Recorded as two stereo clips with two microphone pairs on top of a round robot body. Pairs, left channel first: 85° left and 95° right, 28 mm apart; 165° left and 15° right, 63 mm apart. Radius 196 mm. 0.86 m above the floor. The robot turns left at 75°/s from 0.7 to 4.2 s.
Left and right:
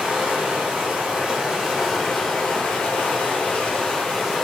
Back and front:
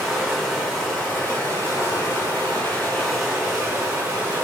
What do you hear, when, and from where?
0.0 s running water: 105° right, 2.0 m; by 4.4 s 5° right, 2.0 m